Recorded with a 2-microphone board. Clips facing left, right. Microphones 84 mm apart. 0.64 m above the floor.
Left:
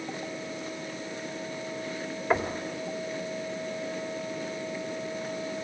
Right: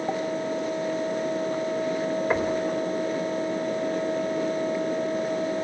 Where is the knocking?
5° right (ahead or behind), 2 m.